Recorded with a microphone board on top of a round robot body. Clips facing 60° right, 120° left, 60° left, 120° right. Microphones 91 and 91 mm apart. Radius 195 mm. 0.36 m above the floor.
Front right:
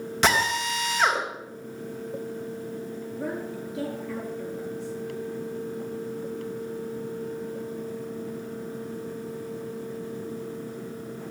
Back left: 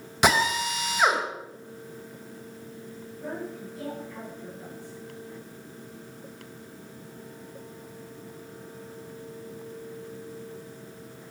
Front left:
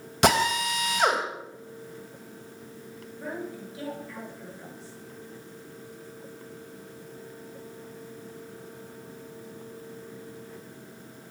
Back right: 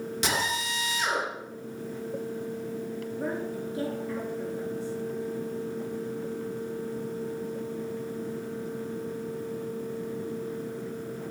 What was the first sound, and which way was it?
A drill, 40° left.